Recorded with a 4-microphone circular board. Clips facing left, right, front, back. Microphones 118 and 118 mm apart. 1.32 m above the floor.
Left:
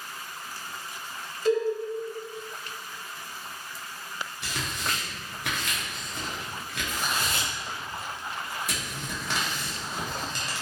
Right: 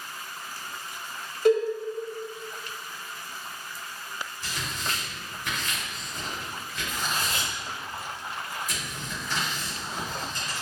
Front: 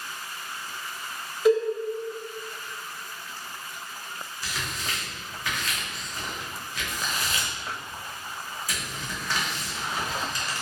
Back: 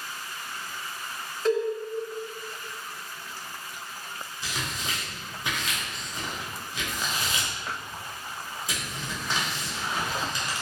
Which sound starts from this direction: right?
A cowbell, at 1.4 s.